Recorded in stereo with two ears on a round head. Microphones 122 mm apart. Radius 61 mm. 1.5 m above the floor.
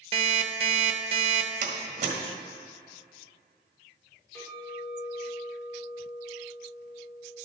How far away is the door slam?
About 1.6 m.